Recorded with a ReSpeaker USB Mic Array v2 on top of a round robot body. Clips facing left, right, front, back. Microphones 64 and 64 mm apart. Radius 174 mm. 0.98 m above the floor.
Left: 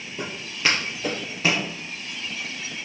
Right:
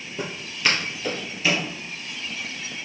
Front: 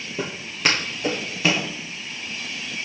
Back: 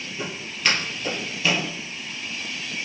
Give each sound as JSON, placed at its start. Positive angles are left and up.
{"t": 0.2, "sound": "footsteps", "azimuth_deg": -15, "distance_m": 1.0}